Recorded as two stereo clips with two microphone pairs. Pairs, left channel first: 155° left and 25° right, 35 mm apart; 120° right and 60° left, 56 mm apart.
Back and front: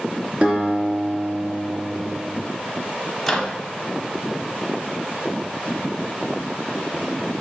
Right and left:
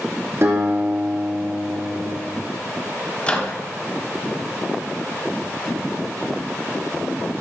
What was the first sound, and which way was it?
A guitar, 25° left.